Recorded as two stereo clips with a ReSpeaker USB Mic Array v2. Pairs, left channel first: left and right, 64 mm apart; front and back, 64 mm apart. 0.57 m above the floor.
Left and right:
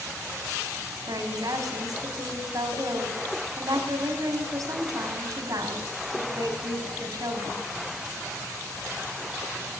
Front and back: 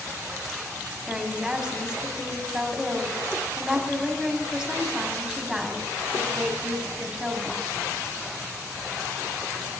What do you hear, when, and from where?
1.1 s a woman speaking: 105° right, 4.5 m